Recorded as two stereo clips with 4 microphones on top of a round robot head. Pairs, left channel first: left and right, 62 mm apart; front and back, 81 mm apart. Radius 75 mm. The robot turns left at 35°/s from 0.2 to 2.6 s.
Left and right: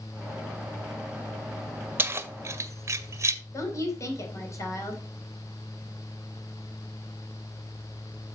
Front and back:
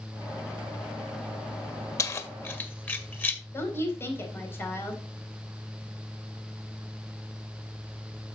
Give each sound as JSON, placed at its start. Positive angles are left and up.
{"t": 2.0, "sound": "keys jangling", "azimuth_deg": -40, "distance_m": 1.1}
{"t": 3.5, "sound": "a woman speaking", "azimuth_deg": 60, "distance_m": 3.5}